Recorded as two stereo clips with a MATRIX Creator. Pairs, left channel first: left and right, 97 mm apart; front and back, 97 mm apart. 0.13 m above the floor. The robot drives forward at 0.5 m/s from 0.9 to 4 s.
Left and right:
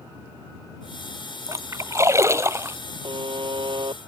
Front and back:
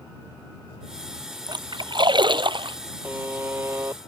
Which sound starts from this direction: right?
A buzzer, at 3.0 s.